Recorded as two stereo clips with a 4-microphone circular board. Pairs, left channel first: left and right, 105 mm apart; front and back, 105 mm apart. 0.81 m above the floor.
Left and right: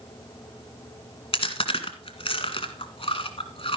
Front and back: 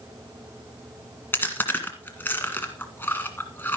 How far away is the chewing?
About 1.7 m.